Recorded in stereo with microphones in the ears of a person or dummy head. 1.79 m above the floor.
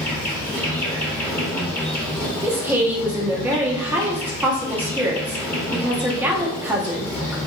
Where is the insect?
5° left (ahead or behind), 1.1 m.